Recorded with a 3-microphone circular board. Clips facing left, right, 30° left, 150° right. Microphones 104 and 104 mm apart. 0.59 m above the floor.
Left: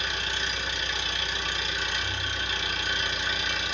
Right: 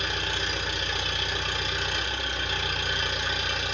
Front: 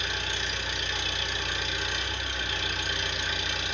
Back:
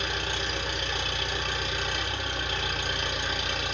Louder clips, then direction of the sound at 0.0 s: Right 1 dB, back 2 dB; 115° right.